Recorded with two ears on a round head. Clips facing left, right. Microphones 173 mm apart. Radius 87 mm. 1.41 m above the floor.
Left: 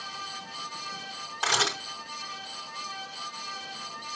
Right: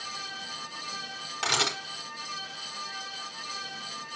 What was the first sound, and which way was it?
A camera shutter, 25° right (ahead or behind).